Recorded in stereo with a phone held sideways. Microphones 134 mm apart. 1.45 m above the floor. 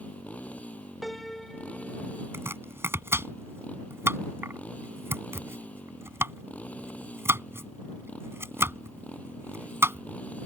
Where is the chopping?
20° right (ahead or behind).